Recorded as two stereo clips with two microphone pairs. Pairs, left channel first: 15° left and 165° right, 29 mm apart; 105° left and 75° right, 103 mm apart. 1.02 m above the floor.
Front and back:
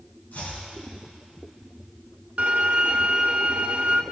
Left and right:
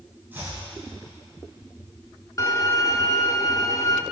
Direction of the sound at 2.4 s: 155° left.